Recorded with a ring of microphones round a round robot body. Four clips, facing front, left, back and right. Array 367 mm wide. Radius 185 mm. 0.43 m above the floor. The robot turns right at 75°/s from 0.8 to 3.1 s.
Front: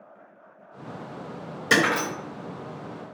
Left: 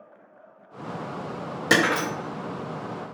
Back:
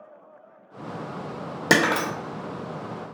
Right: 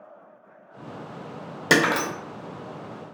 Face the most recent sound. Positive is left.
turn(degrees=-60)